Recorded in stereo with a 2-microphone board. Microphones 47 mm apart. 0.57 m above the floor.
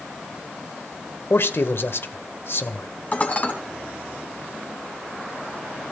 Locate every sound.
1.3 s a man speaking: 60° left (ahead or behind), 1.9 m
3.1 s dishes clattering: 35° left (ahead or behind), 3 m